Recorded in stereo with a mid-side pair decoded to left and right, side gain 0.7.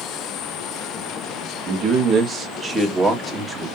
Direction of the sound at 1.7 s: 45° right.